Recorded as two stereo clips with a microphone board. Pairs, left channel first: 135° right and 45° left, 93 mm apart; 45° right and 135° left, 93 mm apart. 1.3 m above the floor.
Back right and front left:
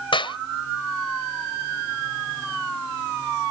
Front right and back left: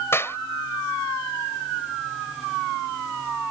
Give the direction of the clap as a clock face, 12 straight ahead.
4 o'clock.